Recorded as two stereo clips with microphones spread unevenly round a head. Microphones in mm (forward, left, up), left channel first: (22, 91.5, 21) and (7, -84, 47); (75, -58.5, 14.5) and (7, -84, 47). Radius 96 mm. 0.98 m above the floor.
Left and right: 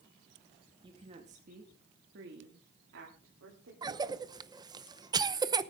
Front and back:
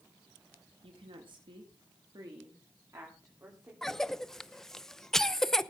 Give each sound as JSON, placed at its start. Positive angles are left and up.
{"t": 0.8, "sound": "a woman speaking", "azimuth_deg": -165, "distance_m": 2.0}
{"t": 3.8, "sound": "a cough", "azimuth_deg": -30, "distance_m": 0.9}